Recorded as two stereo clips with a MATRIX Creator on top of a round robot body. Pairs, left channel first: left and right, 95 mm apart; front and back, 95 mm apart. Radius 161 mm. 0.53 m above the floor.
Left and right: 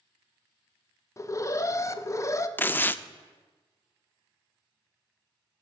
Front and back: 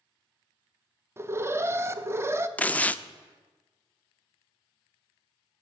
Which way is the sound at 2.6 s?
50° left.